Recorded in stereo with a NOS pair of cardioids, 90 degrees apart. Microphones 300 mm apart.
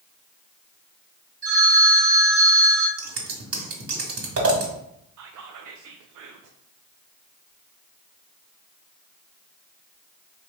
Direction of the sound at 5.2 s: 70° right.